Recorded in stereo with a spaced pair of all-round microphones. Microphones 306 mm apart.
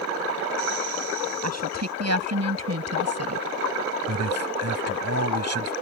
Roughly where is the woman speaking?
Right.